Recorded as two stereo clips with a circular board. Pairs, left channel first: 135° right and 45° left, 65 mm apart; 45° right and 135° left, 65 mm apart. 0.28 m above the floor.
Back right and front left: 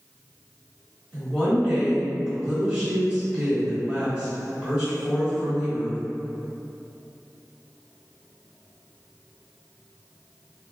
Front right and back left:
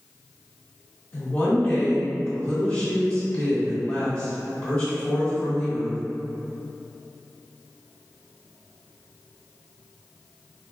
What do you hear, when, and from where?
1.1 s a woman speaking: 15° right, 1.4 m